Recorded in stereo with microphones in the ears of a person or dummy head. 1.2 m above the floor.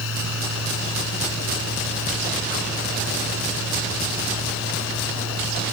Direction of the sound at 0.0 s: 75° left (ahead or behind).